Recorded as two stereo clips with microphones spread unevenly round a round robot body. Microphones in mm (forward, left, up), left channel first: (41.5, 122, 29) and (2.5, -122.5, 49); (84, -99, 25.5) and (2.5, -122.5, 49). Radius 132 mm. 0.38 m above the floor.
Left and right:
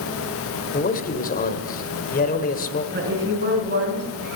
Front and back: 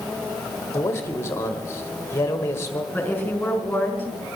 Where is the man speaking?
45° left, 1.6 m.